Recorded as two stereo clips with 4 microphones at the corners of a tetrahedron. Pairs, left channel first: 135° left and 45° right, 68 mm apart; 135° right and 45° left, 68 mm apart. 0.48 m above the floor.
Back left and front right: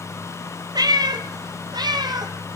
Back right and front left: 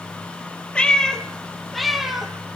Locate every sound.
0.8 s a cat meowing: 60° right, 1.9 m; by 2.6 s 40° right, 3 m